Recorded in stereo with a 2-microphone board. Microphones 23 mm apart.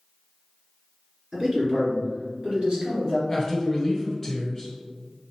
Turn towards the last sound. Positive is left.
turn(degrees=5)  # may be behind; listen again after turning